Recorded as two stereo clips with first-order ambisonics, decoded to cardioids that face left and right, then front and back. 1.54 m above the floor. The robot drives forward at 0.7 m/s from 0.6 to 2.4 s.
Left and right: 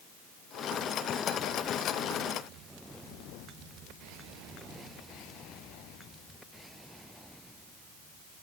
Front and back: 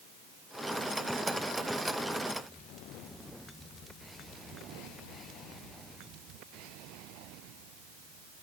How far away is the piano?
No piano in this recording.